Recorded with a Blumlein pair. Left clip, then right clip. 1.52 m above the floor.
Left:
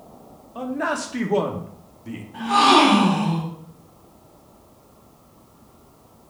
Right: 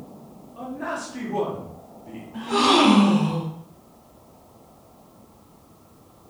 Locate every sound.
0.6 s a man speaking: 50° left, 1.4 m
2.3 s a gasp: 10° left, 3 m